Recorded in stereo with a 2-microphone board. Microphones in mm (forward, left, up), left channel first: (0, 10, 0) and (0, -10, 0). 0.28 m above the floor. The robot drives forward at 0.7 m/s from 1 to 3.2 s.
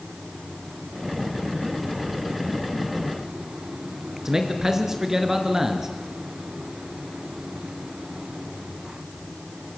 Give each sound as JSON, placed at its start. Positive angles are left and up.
{"t": 4.2, "sound": "a man speaking", "side_deg": -25, "distance_m": 3.5}